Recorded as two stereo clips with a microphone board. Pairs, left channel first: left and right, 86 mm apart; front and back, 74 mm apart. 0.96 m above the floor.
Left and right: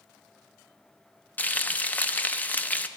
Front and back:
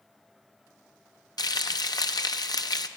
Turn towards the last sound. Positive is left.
turn(degrees=20)